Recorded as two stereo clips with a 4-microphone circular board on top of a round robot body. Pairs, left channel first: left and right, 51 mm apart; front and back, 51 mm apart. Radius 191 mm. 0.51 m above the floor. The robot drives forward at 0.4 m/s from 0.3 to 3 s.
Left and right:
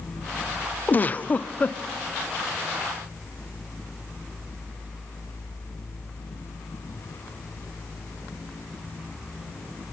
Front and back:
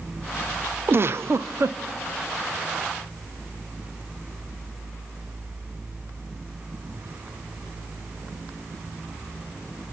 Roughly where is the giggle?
Behind left.